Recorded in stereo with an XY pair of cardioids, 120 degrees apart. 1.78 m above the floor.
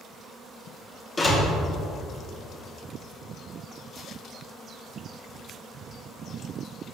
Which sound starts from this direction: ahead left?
A door slam, at 1.2 s.